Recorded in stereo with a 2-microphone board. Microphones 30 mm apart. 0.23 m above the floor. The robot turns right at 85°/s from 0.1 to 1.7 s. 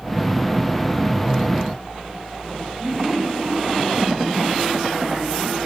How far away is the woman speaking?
About 8 m.